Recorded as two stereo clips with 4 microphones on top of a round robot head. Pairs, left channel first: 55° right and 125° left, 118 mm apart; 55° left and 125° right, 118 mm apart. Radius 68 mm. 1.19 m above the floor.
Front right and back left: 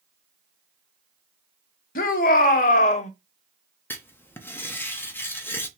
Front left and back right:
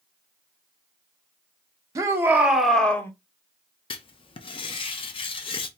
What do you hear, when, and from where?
1.9 s a shout: 60° right, 1.0 m; by 3.1 s 15° right, 0.9 m
3.9 s writing: 15° left, 0.7 m